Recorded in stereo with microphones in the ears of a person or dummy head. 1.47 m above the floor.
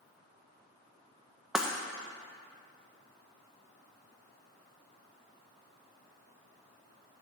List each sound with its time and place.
1.6 s breaking glass: 5° right (ahead or behind), 0.6 m